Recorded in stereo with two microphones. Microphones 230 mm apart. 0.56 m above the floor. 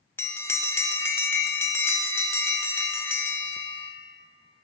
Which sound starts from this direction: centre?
A bell, at 0.2 s.